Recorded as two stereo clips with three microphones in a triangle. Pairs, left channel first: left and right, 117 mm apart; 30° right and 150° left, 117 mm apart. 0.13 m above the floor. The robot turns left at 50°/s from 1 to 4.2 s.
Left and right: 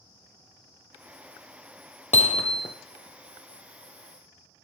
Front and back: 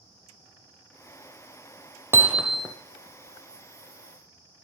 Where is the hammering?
80° left, 1.1 m; by 2.8 s 50° left, 1.1 m.